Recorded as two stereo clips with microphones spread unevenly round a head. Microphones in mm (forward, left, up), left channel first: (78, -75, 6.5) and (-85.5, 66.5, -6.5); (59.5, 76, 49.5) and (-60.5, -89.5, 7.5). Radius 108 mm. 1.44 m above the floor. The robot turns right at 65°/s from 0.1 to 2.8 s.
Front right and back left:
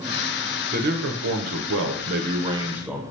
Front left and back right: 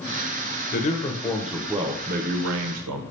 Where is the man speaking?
90° left, 0.5 m; by 3.0 s 135° right, 0.5 m.